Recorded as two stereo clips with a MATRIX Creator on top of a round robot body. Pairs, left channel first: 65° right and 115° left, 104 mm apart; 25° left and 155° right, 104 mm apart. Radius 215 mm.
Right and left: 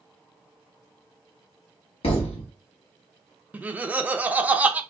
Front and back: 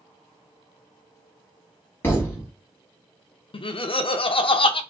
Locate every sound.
2.0 s a thud: 45° right, 0.8 m
3.5 s laughter: 40° left, 0.5 m